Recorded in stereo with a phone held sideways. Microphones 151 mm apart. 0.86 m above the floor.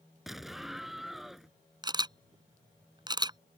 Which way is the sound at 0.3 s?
Centre (ahead or behind).